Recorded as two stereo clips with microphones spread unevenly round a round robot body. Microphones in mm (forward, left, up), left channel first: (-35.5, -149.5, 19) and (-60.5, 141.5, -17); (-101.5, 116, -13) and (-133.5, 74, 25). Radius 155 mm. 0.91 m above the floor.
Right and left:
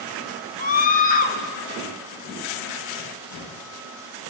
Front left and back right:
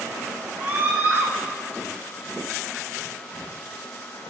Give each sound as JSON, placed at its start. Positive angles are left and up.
{"t": 0.6, "sound": "a scream", "azimuth_deg": -25, "distance_m": 0.5}